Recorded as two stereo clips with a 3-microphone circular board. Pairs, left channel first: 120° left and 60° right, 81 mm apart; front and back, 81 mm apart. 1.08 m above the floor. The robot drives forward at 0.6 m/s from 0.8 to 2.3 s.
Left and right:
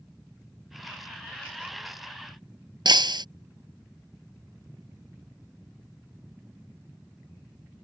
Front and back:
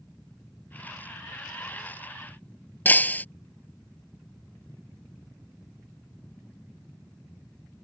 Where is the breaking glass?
65° right.